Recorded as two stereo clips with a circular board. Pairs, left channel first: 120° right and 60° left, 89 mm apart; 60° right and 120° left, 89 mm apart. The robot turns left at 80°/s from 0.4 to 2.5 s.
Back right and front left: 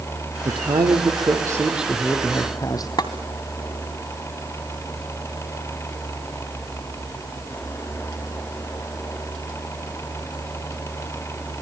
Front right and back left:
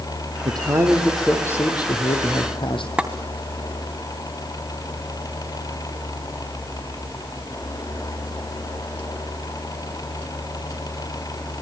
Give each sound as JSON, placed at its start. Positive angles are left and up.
{"t": 0.5, "sound": "a man speaking", "azimuth_deg": 90, "distance_m": 4.5}
{"t": 3.0, "sound": "tapping", "azimuth_deg": -160, "distance_m": 2.5}